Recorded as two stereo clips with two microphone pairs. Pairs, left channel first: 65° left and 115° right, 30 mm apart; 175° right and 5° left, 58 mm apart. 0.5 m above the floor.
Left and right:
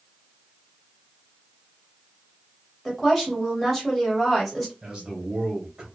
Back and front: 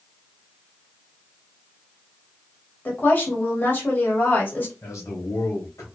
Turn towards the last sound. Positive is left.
turn(degrees=-165)